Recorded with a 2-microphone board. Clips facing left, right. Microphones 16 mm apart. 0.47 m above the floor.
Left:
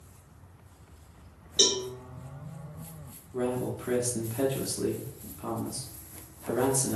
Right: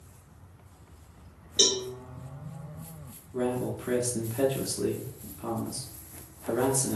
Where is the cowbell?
Centre (ahead or behind), 0.7 m.